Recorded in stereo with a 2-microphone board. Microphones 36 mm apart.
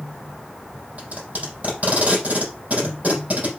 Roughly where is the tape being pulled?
Right.